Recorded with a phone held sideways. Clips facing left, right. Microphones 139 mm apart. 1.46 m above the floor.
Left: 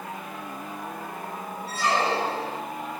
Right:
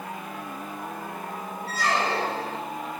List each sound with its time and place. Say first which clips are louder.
1.7 s a squeak: left 1 dB; 30° left (ahead or behind), 4 m